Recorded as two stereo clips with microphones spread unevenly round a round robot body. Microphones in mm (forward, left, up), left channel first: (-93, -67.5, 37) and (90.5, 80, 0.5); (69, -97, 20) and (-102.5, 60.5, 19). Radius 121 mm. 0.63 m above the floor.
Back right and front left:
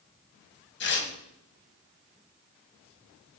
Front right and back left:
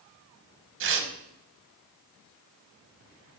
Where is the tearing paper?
175° left, 1.4 m.